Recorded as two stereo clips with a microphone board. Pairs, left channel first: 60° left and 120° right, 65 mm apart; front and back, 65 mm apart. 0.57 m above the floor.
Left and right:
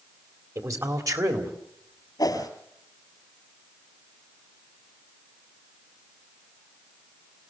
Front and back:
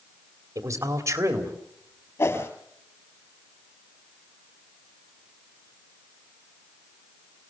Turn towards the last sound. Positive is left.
turn(degrees=40)